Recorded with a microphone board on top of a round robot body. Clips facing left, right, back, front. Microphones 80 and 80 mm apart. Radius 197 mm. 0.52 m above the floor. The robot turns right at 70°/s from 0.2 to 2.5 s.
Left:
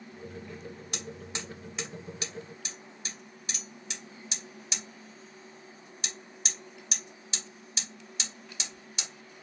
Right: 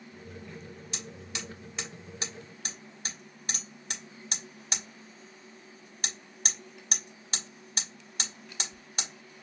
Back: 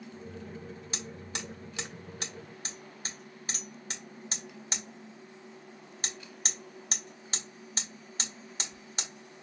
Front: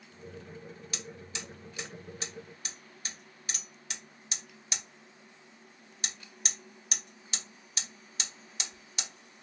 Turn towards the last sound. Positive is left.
turn(degrees=-130)